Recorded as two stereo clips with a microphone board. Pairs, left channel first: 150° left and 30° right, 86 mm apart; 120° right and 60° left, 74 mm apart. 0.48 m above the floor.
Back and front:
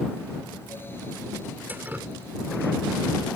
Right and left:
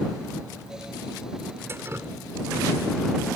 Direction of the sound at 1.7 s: 25° left.